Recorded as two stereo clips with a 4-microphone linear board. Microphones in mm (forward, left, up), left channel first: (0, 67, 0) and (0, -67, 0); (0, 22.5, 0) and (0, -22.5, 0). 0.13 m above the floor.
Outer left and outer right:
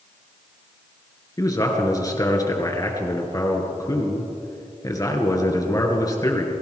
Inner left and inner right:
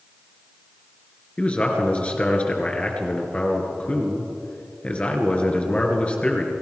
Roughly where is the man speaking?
Left.